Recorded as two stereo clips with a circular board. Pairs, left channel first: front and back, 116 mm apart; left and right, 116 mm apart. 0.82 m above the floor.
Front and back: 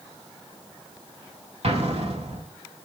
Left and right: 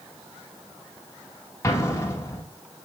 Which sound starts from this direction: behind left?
An explosion, at 1.6 s.